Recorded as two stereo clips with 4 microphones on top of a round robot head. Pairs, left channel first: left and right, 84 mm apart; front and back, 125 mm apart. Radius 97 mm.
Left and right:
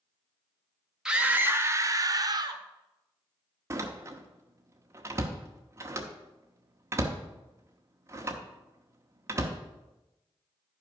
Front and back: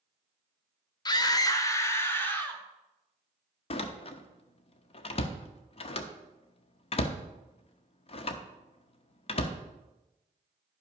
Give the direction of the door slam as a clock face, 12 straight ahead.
1 o'clock.